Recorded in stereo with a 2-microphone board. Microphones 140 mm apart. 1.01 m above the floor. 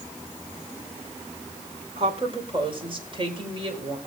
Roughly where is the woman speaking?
Right.